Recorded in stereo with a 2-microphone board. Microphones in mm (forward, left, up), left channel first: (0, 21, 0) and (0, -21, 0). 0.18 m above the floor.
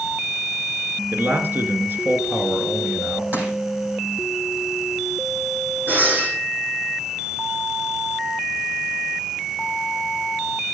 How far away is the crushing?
About 6.5 m.